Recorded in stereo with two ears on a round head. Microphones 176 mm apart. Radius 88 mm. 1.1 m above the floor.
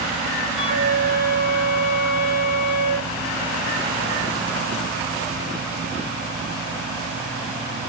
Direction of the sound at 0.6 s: 40° left (ahead or behind).